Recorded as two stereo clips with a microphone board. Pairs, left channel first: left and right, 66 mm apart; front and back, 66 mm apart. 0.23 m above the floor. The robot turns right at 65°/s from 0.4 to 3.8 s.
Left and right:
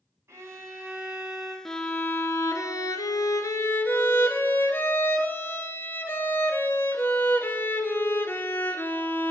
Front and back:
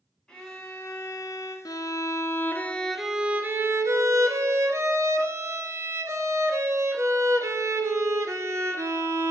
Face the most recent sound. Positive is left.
turn(degrees=145)